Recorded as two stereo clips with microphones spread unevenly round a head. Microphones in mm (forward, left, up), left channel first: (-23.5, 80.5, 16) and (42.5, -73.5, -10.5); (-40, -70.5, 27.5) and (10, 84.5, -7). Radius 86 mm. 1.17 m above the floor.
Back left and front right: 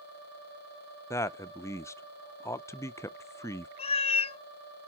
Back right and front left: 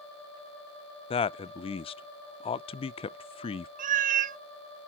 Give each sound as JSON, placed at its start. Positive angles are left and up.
{"t": 1.1, "sound": "a man speaking", "azimuth_deg": -170, "distance_m": 0.6}
{"t": 3.8, "sound": "a cat meowing", "azimuth_deg": 105, "distance_m": 0.5}